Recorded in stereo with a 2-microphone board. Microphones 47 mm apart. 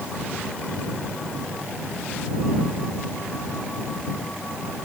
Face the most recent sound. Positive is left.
No sound to turn to.